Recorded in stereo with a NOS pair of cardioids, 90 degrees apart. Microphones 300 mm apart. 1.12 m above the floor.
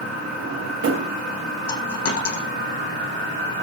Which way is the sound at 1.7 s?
55° left.